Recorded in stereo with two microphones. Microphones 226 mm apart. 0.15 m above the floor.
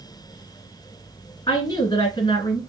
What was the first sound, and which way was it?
A woman speaking, 20° left (ahead or behind).